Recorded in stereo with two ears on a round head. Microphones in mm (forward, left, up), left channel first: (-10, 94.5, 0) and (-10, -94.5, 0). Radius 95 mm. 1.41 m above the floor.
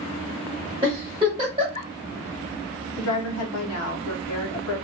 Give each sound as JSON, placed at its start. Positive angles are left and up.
{"t": 0.8, "sound": "a giggle", "side_deg": -25, "distance_m": 1.3}
{"t": 3.0, "sound": "a woman speaking", "side_deg": 75, "distance_m": 0.7}